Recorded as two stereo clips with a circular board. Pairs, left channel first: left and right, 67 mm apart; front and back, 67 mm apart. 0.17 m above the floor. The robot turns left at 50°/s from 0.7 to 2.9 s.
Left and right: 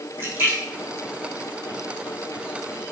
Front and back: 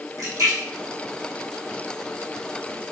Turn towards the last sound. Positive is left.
turn(degrees=110)